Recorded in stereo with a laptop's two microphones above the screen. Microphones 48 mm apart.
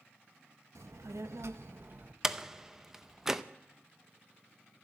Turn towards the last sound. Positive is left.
turn(degrees=-10)  # may be behind; listen again after turning